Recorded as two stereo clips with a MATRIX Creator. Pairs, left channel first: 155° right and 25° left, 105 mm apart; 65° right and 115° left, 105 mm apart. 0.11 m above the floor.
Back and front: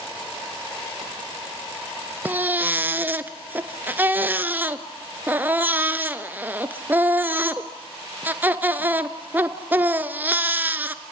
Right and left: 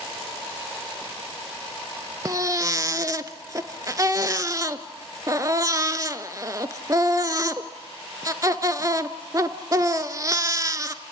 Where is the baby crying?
80° left, 0.9 m.